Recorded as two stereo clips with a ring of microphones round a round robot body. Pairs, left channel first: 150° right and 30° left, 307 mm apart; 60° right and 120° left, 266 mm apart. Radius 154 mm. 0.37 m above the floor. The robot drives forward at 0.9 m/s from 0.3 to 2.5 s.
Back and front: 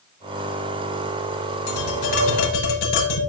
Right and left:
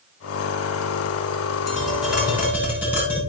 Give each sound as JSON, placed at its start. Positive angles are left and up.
{"t": 1.7, "sound": "tapping", "azimuth_deg": -150, "distance_m": 5.5}